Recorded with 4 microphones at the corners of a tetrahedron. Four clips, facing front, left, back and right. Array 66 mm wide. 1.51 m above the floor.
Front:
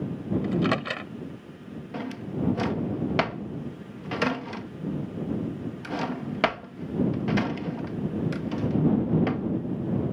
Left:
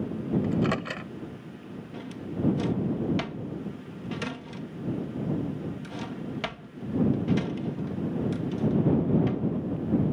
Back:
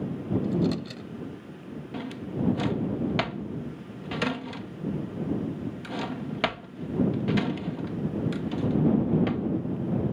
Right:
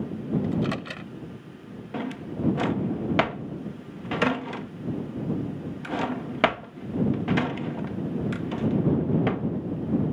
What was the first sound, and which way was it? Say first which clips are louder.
A microwave: left 1 dB, front 4 dB; 20° left.